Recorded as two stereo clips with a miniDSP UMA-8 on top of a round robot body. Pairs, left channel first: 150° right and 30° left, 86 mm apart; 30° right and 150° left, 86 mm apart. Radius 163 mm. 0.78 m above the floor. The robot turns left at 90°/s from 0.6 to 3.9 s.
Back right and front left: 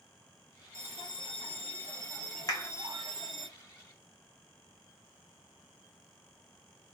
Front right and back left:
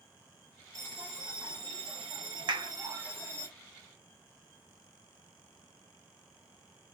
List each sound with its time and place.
0.7 s a bell: 80° right, 1.4 m; by 3.5 s 35° left, 1.4 m
2.5 s a clap: 170° left, 1.6 m; by 2.7 s 145° left, 1.6 m